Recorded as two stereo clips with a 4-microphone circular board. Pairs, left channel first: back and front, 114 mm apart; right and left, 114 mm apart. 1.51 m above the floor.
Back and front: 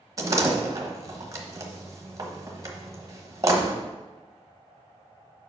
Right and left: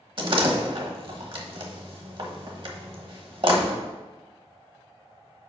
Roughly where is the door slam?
Ahead left.